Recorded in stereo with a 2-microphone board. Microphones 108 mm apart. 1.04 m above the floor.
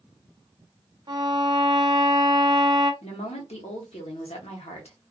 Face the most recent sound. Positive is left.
turn(degrees=80)